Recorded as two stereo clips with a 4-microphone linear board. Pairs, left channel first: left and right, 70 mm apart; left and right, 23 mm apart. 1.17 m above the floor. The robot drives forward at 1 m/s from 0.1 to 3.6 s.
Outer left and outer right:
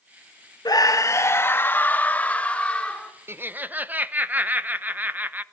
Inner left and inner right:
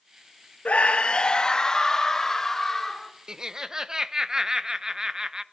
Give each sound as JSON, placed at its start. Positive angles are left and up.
{"t": 0.7, "sound": "a scream", "side_deg": 70, "distance_m": 0.8}
{"t": 3.3, "sound": "laughter", "side_deg": -35, "distance_m": 0.6}